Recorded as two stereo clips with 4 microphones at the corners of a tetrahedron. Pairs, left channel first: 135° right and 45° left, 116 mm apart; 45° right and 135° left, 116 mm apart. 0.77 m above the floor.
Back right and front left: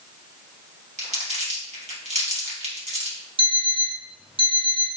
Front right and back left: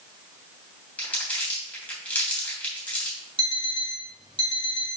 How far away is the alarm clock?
About 1.9 m.